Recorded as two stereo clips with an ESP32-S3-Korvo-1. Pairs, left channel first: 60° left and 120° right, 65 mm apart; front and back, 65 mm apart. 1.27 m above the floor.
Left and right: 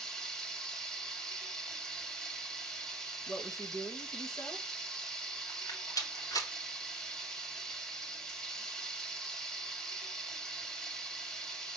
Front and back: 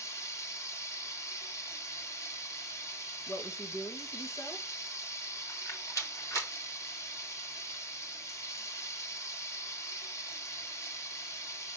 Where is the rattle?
40° left, 3 m.